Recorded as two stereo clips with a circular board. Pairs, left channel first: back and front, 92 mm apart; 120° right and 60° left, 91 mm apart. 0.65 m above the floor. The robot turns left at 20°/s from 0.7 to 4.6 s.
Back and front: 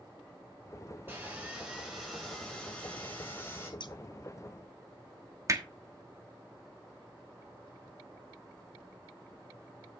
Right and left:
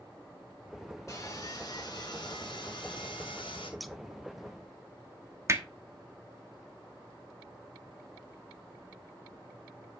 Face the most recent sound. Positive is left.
turn(degrees=25)